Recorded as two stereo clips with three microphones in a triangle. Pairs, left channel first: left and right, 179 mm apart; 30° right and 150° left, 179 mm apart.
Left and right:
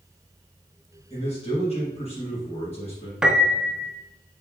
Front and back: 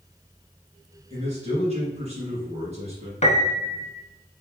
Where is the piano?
5° right, 0.6 m.